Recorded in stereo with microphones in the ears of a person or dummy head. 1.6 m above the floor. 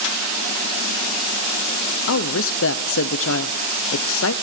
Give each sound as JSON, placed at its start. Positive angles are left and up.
{"t": 2.1, "sound": "a woman speaking", "side_deg": 70, "distance_m": 0.8}